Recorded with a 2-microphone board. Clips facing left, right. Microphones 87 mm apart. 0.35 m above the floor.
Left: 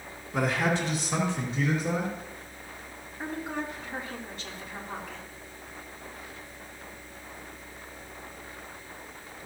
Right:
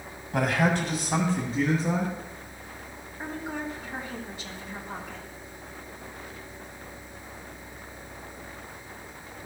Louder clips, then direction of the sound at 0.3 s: Right 2 dB; 60° right (ahead or behind).